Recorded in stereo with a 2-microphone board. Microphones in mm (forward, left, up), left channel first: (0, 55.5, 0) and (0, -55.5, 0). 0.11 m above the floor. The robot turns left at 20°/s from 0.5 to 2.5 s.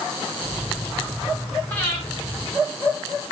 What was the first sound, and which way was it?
Breathing, 25° left (ahead or behind).